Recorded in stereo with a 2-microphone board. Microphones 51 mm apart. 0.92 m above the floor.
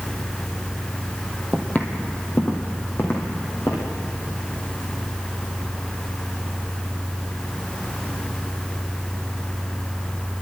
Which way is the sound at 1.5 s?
25° left (ahead or behind).